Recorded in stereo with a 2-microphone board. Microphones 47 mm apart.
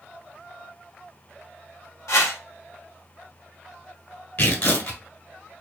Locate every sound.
2.1 s a whoosh: 85° left, 1.3 m
4.4 s tearing paper: 50° left (ahead or behind), 1.4 m